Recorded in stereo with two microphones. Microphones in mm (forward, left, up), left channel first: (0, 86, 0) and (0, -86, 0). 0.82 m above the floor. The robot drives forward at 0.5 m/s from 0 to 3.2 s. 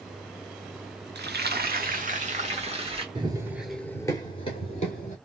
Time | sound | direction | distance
1.1 | frying | 80° right | 0.7 m
3.1 | running footsteps | 30° right (ahead or behind) | 0.9 m